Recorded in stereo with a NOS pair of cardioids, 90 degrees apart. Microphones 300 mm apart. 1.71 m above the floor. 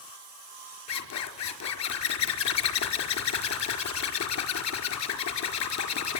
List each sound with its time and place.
0.9 s a zipper: 65° left, 4.5 m